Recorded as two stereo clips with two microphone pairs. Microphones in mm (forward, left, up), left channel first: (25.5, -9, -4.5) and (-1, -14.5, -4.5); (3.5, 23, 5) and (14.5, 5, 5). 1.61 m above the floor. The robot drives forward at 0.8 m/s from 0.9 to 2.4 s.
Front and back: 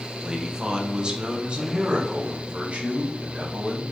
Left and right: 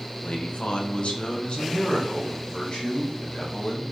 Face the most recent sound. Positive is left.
turn(degrees=150)